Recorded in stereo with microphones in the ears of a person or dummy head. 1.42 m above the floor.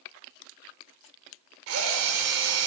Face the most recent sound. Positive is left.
turn(degrees=-80)